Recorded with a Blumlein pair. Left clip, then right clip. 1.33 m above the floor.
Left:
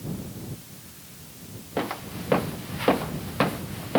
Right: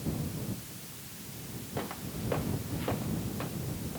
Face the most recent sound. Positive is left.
turn(degrees=50)